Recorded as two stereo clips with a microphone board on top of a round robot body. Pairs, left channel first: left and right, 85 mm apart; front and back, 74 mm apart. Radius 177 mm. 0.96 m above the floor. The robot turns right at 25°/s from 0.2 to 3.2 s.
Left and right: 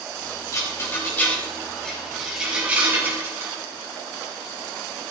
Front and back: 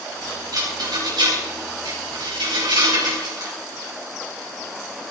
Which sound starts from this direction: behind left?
A rattle, at 0.5 s.